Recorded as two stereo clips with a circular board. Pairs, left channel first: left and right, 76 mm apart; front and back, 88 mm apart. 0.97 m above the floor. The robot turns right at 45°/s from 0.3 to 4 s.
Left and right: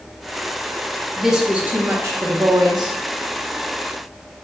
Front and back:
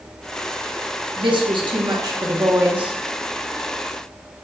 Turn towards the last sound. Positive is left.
turn(degrees=-55)